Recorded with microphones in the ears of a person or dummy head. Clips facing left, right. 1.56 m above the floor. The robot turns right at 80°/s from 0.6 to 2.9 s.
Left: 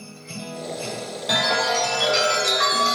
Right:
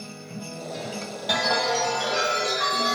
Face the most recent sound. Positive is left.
turn(degrees=130)